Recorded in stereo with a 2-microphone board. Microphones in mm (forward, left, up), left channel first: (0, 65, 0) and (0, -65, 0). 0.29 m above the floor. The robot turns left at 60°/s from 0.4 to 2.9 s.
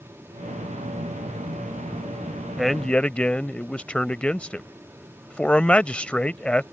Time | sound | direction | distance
2.6 | a man speaking | centre (ahead or behind) | ?